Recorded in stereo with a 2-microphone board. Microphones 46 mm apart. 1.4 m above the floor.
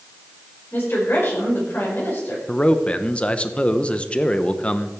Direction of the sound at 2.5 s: 25° left (ahead or behind).